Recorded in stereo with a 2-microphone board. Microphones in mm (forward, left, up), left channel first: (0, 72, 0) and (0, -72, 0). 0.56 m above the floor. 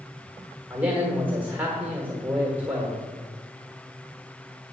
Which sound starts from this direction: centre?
A man speaking, at 0.7 s.